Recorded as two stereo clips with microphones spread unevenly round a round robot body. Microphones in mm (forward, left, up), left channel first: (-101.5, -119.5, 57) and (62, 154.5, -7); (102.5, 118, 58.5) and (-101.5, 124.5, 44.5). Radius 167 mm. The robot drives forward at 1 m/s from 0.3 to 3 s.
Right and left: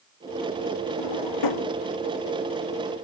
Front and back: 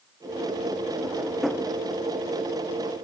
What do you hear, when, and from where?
1.0 s a drawer: 90° right; by 1.7 s 95° right